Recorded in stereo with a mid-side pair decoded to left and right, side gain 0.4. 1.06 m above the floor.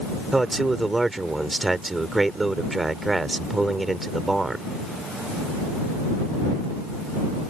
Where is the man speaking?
20° right.